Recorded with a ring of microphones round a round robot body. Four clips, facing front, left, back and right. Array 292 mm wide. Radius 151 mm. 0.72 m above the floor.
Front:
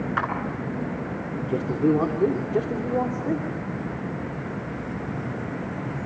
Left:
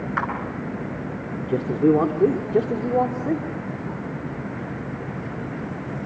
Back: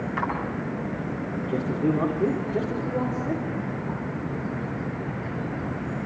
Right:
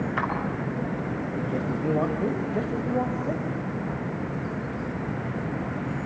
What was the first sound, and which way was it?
A clap, 50° left.